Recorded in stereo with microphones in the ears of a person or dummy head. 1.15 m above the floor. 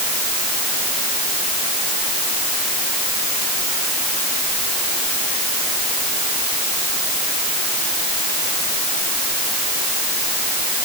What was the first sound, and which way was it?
Only background noise.